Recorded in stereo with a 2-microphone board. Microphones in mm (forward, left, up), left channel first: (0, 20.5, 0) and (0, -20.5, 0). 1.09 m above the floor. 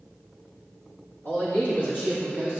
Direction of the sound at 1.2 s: 65° left (ahead or behind).